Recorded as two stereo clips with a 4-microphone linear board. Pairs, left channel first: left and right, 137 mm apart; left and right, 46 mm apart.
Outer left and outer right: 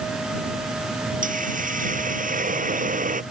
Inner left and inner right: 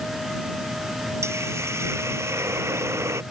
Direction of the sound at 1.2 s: 80° right.